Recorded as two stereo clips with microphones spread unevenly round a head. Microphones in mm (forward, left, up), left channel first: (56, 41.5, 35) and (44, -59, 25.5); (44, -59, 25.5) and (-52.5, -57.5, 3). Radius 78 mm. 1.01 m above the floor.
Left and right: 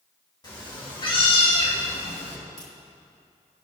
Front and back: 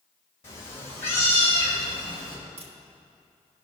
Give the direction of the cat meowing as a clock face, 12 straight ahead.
11 o'clock.